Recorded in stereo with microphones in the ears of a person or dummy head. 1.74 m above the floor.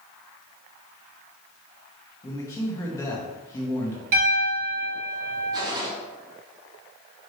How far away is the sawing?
No sawing in this recording.